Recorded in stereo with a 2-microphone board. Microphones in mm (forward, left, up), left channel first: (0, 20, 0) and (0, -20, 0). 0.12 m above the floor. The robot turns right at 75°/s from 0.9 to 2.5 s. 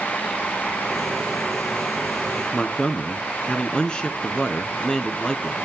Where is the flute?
I don't hear a flute.